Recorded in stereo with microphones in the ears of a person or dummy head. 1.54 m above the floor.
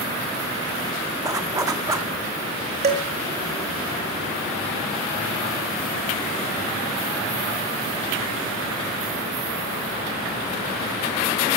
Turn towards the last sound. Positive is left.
turn(degrees=-35)  # may be behind; listen again after turning